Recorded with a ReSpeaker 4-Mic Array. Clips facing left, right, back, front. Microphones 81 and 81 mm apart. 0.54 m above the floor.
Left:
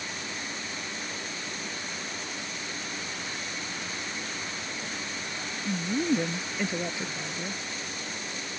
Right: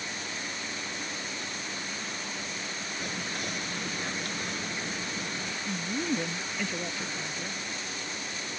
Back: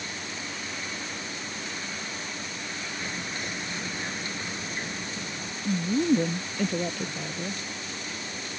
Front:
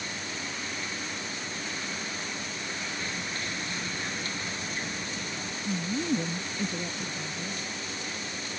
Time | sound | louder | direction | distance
3.0 | whispering | right 2 dB, back 1 dB | 110° right | ?
5.7 | a woman speaking | left 5 dB, back 6 dB | 165° left | ?